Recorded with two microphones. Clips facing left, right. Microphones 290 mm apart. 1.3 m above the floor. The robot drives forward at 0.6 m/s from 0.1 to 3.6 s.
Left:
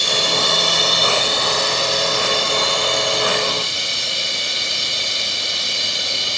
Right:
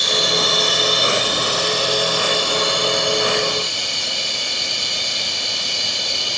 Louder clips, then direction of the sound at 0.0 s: Right 1 dB; 30° left (ahead or behind).